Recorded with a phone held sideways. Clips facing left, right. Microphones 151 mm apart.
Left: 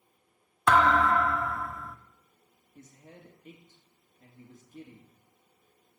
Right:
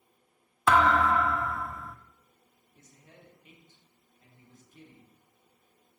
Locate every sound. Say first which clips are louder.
0.7 s a thud: even; 5° right (ahead or behind), 0.6 m
2.8 s a man speaking: left 5 dB; 50° left (ahead or behind), 1.9 m